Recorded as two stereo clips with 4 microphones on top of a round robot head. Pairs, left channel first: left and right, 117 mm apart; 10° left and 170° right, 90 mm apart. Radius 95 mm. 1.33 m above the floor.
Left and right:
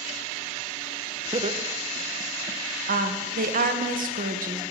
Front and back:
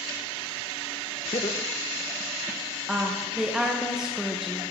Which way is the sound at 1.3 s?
40° right.